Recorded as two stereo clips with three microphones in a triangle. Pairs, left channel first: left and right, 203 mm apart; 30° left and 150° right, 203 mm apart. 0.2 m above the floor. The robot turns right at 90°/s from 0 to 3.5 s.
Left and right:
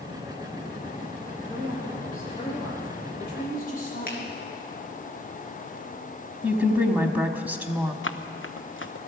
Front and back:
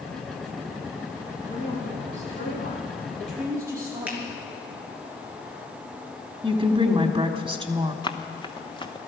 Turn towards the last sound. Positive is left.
turn(degrees=95)